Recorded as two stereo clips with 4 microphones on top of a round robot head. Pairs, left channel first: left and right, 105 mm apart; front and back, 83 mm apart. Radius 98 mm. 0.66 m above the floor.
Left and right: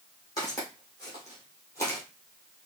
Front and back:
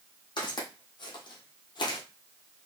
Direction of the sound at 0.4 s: 25° left.